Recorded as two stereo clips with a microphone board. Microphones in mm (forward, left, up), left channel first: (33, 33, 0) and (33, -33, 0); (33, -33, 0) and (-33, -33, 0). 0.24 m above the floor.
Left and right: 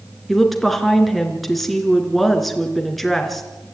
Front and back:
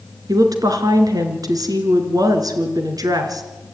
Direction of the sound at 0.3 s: Straight behind.